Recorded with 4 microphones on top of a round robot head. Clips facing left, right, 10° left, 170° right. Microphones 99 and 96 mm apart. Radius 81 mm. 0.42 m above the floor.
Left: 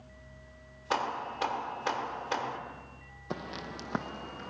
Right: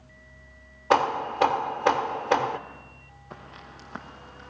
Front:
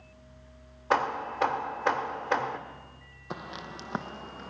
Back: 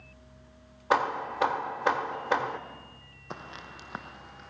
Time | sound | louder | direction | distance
0.9 | hammering | right 10 dB, back 1 dB | 90° right | 0.9 m
3.3 | footsteps | left 6 dB, front 3 dB | 90° left | 1.0 m